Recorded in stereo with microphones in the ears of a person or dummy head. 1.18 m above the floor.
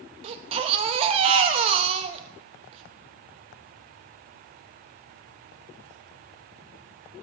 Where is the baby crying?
30° right (ahead or behind), 0.7 m.